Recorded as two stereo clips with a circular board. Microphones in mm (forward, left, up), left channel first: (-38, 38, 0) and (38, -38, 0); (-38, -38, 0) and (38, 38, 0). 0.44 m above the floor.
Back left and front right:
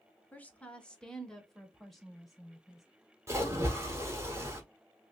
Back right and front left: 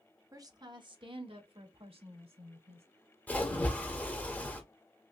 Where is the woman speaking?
70° left, 0.8 m; by 2.9 s 45° left, 2 m.